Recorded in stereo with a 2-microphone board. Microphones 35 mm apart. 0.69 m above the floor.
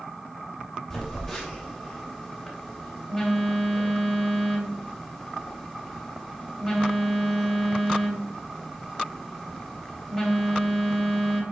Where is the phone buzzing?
20° left (ahead or behind), 2.5 m.